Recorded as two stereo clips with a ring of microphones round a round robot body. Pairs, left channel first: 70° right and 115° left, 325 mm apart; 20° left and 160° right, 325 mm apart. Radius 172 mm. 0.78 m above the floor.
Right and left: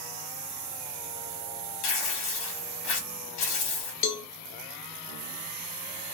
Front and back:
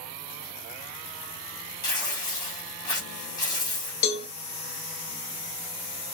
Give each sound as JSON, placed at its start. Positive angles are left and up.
{"t": 1.8, "sound": "tearing paper", "azimuth_deg": -55, "distance_m": 1.0}
{"t": 4.0, "sound": "a cowbell", "azimuth_deg": -15, "distance_m": 0.6}